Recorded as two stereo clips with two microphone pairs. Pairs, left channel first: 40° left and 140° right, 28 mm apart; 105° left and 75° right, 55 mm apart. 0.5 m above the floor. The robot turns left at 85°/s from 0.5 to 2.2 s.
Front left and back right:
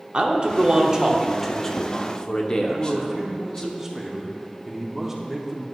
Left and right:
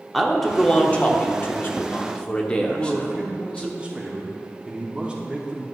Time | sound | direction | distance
0.1 | a man speaking | 165° right | 0.8 m
2.7 | a man speaking | 75° right | 0.8 m